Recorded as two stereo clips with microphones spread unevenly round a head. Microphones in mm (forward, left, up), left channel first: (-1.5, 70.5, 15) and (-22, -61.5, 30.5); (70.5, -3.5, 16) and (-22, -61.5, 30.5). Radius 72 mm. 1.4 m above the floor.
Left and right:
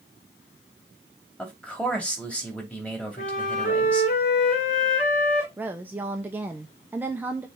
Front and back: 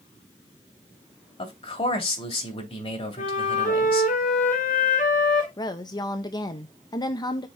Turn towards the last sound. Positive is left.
turn(degrees=-20)